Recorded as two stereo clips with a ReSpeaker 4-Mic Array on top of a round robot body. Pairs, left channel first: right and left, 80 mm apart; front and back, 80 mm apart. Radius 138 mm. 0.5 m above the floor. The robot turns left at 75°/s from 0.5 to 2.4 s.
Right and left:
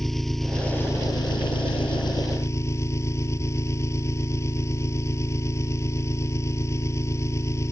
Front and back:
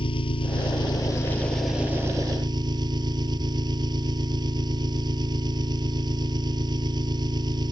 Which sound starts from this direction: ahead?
An engine running, at 0.0 s.